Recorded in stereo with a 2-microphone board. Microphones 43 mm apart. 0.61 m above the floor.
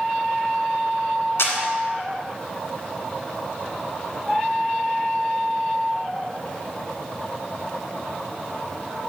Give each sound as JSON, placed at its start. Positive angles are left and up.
{"t": 1.4, "sound": "a camera shutter", "side_deg": 75, "distance_m": 1.8}